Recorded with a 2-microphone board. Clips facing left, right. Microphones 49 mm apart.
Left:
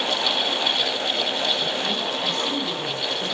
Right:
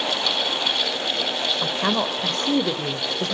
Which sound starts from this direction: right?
A woman speaking, at 1.6 s.